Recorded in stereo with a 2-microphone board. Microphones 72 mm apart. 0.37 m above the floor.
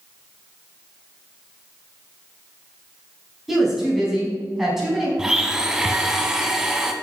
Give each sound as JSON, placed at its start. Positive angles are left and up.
{"t": 3.5, "sound": "a woman speaking", "side_deg": -5, "distance_m": 3.5}
{"t": 5.2, "sound": "a blender", "side_deg": -10, "distance_m": 0.8}